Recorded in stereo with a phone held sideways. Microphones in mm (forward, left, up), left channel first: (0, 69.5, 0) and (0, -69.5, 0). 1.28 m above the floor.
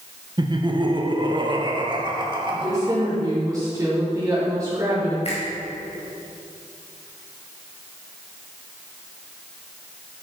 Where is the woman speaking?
25° right (ahead or behind), 4 m.